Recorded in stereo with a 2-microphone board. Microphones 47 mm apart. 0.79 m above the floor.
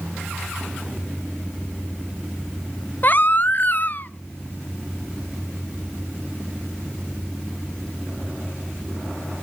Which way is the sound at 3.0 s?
45° left (ahead or behind).